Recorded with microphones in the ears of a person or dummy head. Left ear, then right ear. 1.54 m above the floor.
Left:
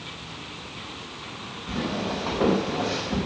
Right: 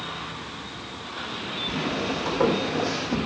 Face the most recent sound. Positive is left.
turn(degrees=-65)  # may be behind; listen again after turning